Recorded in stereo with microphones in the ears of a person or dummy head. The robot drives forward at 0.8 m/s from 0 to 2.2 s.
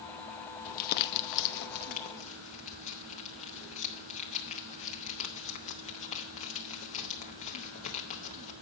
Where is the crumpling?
45° left (ahead or behind), 0.7 m; by 8.5 s 35° left (ahead or behind), 0.9 m.